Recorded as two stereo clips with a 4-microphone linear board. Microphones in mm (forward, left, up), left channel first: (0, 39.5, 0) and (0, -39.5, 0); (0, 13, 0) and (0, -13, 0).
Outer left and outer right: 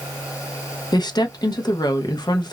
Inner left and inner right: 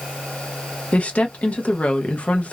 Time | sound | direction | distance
0.9 | a woman speaking | 60° left (ahead or behind) | 0.6 m